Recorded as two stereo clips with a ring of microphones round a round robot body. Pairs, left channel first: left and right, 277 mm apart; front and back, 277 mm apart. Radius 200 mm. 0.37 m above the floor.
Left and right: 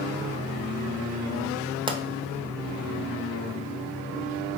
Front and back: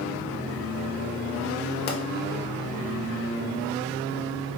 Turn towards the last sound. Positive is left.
turn(degrees=-25)